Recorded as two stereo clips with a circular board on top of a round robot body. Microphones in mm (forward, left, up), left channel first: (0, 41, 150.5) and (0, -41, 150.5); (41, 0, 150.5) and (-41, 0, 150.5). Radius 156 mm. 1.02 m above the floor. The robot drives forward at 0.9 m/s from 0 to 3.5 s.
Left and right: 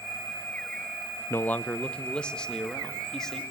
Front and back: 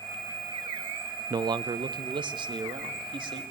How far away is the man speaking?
About 0.5 m.